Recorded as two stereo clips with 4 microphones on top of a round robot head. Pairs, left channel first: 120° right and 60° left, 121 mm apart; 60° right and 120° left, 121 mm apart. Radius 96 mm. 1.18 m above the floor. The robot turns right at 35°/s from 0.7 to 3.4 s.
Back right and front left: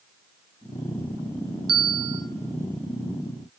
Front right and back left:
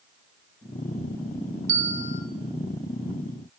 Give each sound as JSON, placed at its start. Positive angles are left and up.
{"t": 1.7, "sound": "a bell", "azimuth_deg": 115, "distance_m": 1.3}